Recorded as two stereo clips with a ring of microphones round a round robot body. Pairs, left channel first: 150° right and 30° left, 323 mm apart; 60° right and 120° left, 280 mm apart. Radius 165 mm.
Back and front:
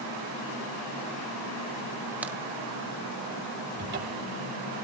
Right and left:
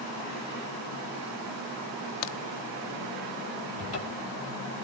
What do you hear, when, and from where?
2.2 s a crack: 55° right, 0.8 m
3.8 s a cupboard door: 25° right, 2.5 m